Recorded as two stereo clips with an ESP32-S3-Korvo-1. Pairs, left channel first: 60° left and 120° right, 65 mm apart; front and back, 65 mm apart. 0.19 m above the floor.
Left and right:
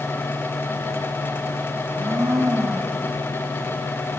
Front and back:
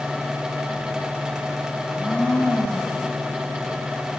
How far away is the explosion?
No explosion in this recording.